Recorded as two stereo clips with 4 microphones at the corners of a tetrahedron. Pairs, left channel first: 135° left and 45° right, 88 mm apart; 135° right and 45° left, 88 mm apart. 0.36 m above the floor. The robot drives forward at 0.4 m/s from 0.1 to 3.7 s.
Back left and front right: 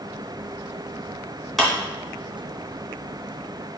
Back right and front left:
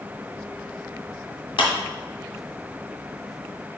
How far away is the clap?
About 2.5 m.